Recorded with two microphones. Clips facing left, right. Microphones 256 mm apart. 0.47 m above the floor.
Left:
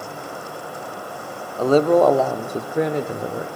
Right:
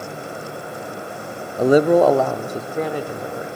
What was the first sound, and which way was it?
A man speaking, 20° right (ahead or behind).